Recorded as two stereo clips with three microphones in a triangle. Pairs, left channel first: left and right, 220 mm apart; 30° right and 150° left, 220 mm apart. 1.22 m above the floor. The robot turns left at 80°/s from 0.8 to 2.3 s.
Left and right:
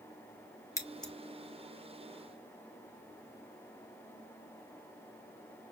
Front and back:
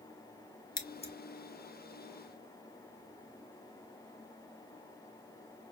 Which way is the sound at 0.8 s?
25° left.